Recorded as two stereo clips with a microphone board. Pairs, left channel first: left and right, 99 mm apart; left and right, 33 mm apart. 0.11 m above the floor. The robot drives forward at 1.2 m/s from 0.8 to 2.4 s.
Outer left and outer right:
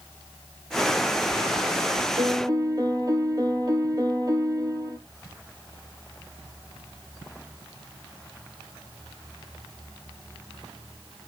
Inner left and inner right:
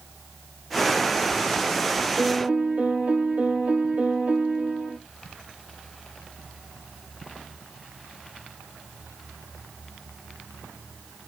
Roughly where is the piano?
Right.